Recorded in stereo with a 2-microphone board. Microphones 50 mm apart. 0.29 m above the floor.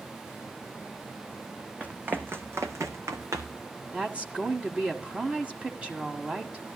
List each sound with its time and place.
1.8 s running footsteps: 30° right (ahead or behind), 1.3 m; by 3.6 s 70° right (ahead or behind), 1.6 m
3.9 s a woman speaking: 25° right (ahead or behind), 1.6 m